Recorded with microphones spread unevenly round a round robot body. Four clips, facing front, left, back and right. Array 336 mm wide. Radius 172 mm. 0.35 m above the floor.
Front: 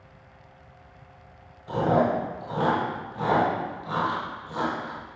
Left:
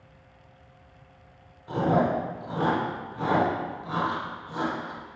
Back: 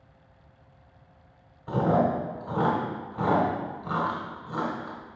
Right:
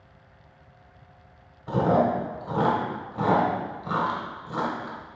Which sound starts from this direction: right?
Chewing, at 1.7 s.